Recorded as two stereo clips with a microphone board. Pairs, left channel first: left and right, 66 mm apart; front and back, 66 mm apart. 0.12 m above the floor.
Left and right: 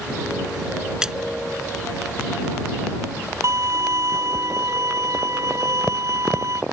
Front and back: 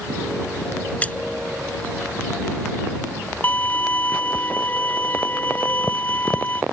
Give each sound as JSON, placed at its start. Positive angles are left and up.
{"t": 1.0, "sound": "a splash", "azimuth_deg": -25}
{"t": 3.4, "sound": "a violin", "azimuth_deg": -60}